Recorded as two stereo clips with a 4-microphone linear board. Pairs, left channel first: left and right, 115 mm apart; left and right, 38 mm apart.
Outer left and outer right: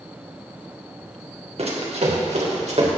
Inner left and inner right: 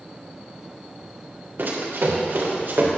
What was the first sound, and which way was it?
Running footsteps, 60° right (ahead or behind).